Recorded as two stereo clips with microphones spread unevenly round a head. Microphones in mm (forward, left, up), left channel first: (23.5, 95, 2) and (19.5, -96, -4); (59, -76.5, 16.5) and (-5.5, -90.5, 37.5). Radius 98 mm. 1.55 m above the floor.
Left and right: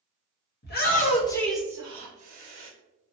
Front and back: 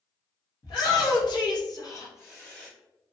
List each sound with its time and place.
0.6 s a shout: 50° left, 0.9 m; by 2.7 s 50° right, 1.1 m